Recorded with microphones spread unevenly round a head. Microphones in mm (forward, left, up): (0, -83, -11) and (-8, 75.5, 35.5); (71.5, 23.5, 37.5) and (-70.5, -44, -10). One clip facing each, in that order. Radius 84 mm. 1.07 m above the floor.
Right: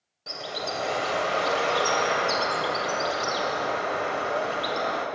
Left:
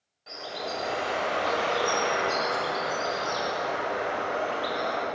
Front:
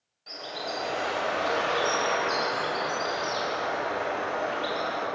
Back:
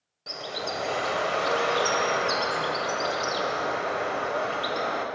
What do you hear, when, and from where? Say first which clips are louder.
0.3 s a bird: right 2 dB, back 2 dB; 125° right, 1.8 m